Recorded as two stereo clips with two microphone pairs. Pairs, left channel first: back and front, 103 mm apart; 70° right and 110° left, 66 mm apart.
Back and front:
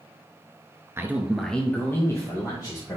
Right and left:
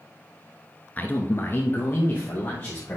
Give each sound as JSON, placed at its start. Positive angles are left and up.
{"t": 1.0, "sound": "a man speaking", "azimuth_deg": -40, "distance_m": 1.2}